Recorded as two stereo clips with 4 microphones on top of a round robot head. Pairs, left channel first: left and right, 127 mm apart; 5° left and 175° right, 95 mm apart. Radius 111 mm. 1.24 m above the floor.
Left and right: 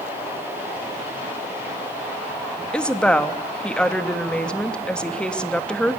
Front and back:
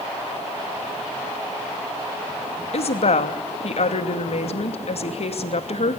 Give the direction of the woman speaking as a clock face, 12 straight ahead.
12 o'clock.